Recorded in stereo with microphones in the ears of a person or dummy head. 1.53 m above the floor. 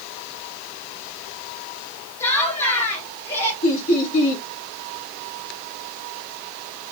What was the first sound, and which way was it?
Laughter, 15° left (ahead or behind).